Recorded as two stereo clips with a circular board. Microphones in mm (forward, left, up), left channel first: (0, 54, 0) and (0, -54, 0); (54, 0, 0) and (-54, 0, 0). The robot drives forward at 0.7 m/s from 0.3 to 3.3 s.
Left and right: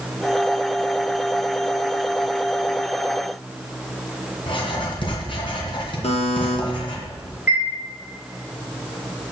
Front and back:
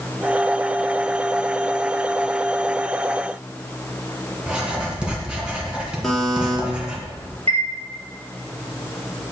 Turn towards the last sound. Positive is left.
turn(degrees=-160)